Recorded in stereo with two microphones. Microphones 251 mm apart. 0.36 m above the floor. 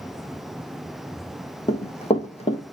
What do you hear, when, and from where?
1.7 s running footsteps: 25° left (ahead or behind), 1.1 m